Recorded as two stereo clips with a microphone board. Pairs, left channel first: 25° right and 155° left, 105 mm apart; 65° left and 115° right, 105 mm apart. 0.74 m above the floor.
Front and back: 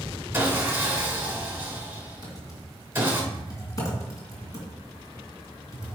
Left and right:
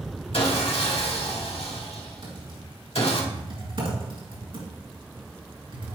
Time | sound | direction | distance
0.3 | sawing | 90° left | 1.3 m
2.2 | typing on a keyboard | 80° right | 2.5 m